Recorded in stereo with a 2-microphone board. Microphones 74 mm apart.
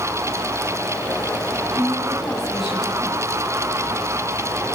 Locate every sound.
1.8 s a woman speaking: 5° right (ahead or behind), 8 m